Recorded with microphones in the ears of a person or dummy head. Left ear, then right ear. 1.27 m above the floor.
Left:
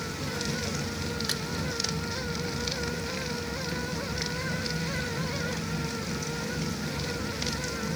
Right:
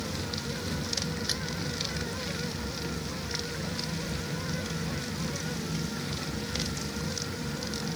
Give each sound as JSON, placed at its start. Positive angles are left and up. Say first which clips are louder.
{"t": 1.3, "sound": "a splash", "louder": "even", "side_deg": 10}